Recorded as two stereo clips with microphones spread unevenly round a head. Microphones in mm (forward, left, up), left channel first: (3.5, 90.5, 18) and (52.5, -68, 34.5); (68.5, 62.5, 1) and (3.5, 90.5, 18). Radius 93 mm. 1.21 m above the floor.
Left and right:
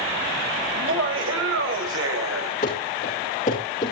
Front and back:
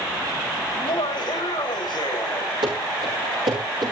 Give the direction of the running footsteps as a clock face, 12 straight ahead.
7 o'clock.